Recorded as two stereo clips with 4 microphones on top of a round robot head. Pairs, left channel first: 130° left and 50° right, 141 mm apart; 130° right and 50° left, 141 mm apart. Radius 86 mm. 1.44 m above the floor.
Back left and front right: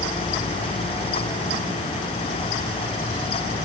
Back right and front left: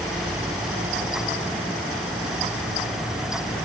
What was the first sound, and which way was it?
Only background noise.